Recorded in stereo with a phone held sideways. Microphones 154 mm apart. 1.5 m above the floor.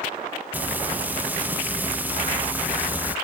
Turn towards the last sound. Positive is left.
turn(degrees=-10)  # may be behind; listen again after turning